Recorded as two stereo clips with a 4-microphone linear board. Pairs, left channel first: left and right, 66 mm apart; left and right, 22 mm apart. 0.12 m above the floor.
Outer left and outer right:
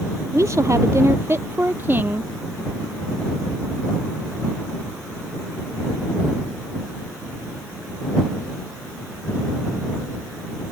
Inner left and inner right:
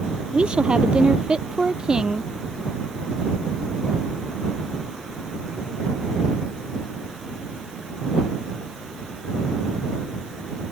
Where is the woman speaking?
50° right (ahead or behind); by 2.3 s 30° right (ahead or behind).